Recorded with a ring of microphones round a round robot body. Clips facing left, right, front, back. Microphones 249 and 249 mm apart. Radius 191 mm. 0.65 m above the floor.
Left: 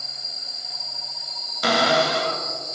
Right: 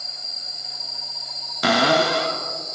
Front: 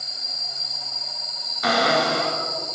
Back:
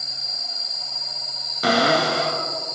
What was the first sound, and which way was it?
A cupboard door, 115° right.